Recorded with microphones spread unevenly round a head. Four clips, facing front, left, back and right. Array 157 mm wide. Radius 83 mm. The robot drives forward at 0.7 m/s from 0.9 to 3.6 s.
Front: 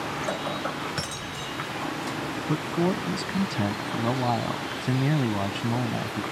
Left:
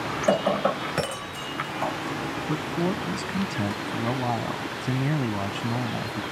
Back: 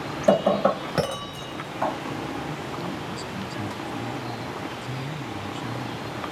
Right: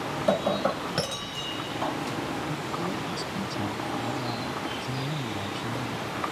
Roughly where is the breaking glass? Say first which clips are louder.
Left 3 dB, back 15 dB; behind.